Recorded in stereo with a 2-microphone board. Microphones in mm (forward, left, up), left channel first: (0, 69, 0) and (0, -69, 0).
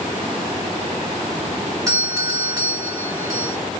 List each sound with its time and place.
1.9 s a doorbell: 25° right (ahead or behind), 1.6 m